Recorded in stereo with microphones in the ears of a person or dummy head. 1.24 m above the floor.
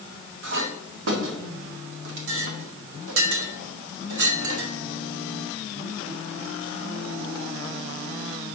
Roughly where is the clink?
Right.